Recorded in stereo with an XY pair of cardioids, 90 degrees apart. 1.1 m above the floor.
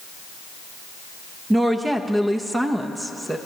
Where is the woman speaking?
20° right, 0.8 m.